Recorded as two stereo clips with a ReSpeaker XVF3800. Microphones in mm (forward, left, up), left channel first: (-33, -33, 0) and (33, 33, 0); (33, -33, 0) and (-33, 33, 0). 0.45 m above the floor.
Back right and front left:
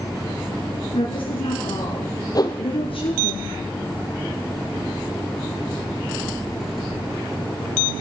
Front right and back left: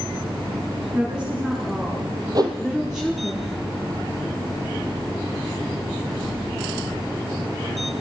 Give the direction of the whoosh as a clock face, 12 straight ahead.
6 o'clock.